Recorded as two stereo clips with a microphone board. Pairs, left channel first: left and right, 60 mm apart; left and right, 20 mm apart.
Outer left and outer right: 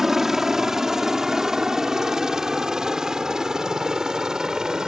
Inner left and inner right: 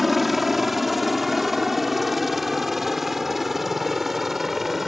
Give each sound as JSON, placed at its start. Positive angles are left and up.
{"t": 0.0, "sound": "a helicopter", "side_deg": -5}